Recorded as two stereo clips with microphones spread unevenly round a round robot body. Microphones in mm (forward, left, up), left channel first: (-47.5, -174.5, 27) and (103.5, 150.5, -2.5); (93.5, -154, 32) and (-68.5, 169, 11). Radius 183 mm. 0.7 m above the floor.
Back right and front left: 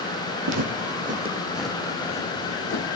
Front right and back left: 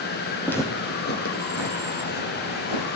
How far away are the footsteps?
About 1.7 m.